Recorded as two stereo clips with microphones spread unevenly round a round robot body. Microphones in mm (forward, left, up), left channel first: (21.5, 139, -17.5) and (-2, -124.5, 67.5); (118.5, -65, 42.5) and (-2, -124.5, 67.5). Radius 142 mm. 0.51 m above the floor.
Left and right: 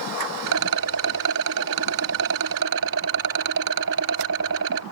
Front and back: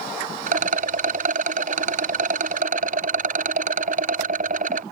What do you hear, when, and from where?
0.5 s a rattle: 135° right